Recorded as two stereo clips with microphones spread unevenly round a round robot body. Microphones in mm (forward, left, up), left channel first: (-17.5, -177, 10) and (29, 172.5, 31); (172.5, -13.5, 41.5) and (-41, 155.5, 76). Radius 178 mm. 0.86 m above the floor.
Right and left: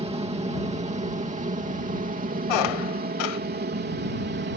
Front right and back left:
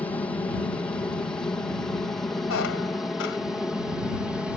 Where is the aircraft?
25° left; by 4.6 s 45° left.